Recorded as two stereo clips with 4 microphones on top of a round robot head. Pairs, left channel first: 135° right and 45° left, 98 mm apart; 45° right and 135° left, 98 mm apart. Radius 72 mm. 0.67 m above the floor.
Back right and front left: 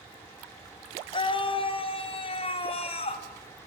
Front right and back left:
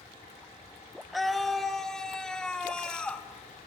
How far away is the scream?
About 1.8 m.